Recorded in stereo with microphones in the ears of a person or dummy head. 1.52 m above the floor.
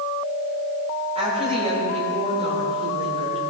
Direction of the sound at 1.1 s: 35° right (ahead or behind).